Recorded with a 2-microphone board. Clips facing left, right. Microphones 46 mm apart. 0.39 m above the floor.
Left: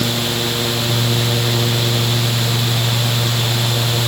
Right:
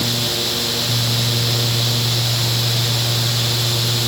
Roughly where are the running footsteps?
No running footsteps in this recording.